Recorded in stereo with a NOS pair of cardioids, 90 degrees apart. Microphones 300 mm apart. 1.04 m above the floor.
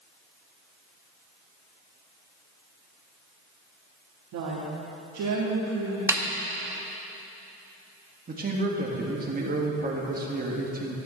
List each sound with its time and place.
4.3 s a woman speaking: 70° right, 1.6 m
6.1 s a snare drum: 10° right, 0.9 m
8.3 s a man speaking: 30° right, 1.8 m